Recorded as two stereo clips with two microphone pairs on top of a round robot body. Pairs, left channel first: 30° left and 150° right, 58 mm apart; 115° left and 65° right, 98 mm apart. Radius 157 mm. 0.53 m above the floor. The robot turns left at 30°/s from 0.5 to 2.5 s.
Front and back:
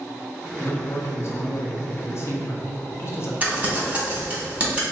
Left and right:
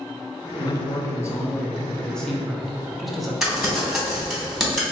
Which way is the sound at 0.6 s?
75° left.